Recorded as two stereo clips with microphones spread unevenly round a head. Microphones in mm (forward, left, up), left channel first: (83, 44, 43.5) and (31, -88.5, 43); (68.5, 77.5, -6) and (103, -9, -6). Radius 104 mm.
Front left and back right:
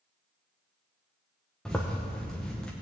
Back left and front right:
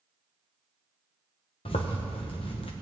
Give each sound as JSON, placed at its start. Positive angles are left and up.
{"t": 1.6, "sound": "a zipper", "azimuth_deg": 155, "distance_m": 0.9}